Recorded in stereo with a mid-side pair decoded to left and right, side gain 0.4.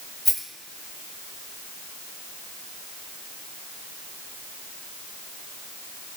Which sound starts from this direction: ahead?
A rattle, at 0.2 s.